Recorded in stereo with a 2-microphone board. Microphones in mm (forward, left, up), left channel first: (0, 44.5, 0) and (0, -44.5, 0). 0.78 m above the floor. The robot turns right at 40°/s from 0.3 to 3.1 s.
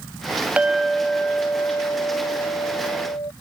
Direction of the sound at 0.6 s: 10° right.